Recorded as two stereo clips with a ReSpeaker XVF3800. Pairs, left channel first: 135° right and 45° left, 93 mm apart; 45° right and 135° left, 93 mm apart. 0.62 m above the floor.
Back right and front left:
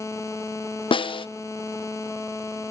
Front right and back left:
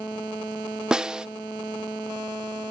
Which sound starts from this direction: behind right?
A snare drum, at 0.9 s.